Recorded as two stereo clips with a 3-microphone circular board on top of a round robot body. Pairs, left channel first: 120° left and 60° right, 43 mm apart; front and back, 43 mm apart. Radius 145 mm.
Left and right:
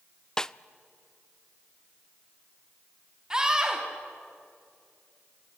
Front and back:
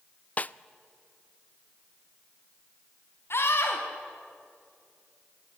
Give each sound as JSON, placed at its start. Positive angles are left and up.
{"t": 0.4, "sound": "a snare drum", "azimuth_deg": 45, "distance_m": 0.5}
{"t": 3.3, "sound": "a scream", "azimuth_deg": 10, "distance_m": 2.5}